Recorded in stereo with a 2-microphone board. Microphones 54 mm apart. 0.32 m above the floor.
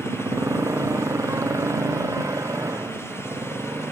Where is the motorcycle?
70° right (ahead or behind).